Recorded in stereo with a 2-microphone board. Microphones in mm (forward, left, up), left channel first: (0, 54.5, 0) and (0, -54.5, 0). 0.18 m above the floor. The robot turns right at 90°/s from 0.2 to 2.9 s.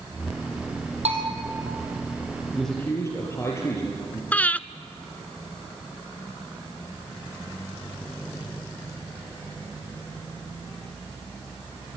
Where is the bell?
80° right, 4.5 m; by 1.3 s 60° right (ahead or behind), 4.5 m.